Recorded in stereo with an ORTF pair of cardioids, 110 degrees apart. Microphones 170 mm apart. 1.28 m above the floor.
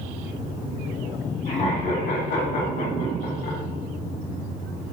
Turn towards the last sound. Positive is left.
turn(degrees=75)